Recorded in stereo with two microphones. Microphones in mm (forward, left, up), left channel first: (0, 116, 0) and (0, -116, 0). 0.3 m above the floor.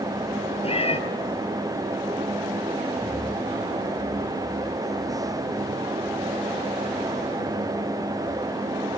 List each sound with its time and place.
0.6 s a cat meowing: 25° left (ahead or behind), 1.5 m